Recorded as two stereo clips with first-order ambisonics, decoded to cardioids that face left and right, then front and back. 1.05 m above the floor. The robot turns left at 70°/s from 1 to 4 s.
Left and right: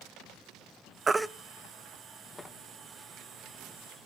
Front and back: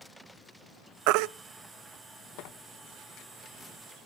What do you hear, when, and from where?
1.1 s a baby crying: 165° right, 0.5 m; by 1.3 s straight behind, 0.5 m
2.4 s tearing paper: 10° left, 1.2 m; by 4.0 s 100° right, 1.2 m